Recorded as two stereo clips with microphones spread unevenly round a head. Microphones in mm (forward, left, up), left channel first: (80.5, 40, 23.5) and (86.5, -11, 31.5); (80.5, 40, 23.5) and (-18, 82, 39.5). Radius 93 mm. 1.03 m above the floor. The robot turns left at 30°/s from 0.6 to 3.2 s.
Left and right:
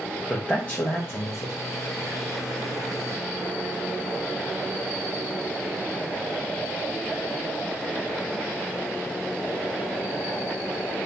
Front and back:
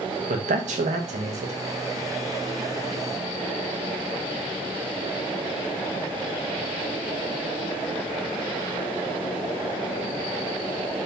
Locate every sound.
0.3 s a man speaking: 170° left, 0.7 m; by 1.5 s 145° left, 0.7 m